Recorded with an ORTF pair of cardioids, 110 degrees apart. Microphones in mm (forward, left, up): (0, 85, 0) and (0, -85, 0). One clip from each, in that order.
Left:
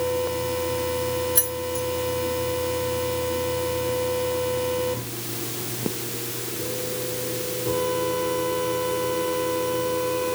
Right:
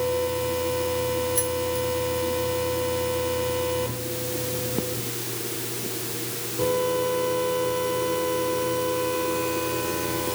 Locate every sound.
1.4 s keys jangling: 45° left